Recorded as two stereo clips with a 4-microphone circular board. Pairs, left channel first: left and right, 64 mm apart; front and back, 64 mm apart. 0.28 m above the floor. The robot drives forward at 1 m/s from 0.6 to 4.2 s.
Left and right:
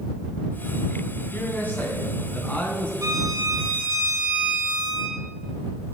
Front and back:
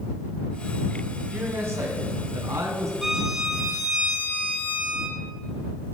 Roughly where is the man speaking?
Behind left.